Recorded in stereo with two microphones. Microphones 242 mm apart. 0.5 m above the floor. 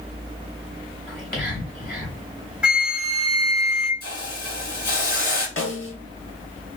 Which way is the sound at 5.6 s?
55° left (ahead or behind).